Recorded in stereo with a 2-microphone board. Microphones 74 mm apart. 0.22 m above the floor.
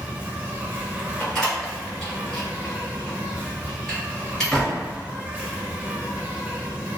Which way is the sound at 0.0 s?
25° right (ahead or behind).